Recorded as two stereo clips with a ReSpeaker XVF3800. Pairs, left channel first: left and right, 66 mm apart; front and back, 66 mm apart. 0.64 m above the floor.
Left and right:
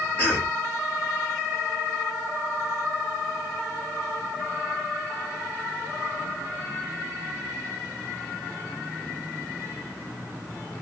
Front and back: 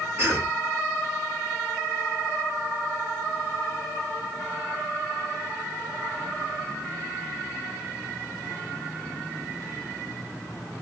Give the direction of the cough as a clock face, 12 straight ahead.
7 o'clock.